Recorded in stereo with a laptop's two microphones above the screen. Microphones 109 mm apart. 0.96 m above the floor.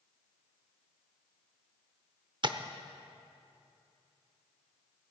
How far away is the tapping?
About 0.7 m.